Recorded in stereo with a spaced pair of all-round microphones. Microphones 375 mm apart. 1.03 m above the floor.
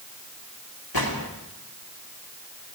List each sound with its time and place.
0.9 s a gunshot: 80° left, 2.5 m